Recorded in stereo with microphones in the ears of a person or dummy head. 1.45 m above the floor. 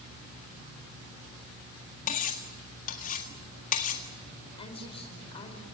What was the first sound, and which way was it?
Cutlery clinking, 45° left (ahead or behind).